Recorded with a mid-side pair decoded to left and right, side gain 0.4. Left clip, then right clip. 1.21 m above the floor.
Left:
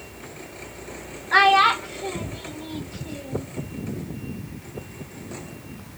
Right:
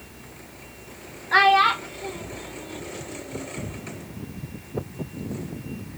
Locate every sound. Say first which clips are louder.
1.3 s a child speaking: left 1 dB; straight ahead, 0.6 m; by 3.5 s 65° left, 1.4 m